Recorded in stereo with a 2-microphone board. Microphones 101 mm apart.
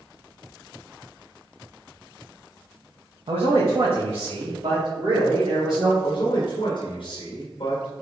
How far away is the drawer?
No drawer in this recording.